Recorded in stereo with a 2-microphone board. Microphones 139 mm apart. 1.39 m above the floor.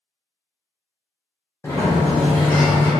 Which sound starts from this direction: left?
A sliding door, at 1.6 s.